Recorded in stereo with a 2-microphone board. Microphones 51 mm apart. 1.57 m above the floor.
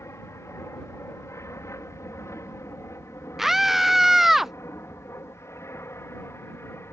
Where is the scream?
5° right (ahead or behind).